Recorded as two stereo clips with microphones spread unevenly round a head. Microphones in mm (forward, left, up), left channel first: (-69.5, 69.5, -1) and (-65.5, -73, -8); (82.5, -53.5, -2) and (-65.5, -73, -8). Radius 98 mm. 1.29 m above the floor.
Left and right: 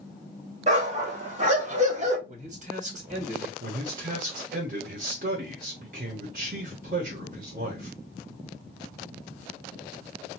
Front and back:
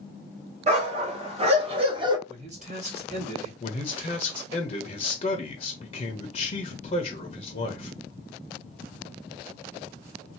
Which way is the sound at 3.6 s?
45° right.